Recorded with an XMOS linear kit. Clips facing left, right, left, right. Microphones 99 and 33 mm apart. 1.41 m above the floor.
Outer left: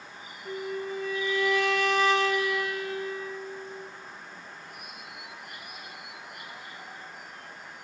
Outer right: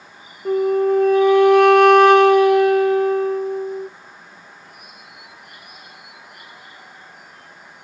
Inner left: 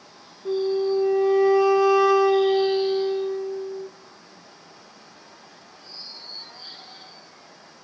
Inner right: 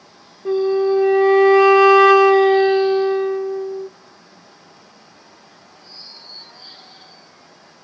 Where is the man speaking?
No man speaking in this recording.